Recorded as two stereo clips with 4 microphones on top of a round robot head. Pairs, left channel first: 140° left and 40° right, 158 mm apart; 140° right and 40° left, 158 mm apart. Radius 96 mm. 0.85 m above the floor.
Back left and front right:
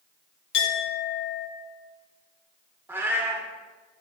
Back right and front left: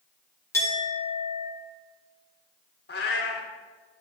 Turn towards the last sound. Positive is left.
turn(degrees=-115)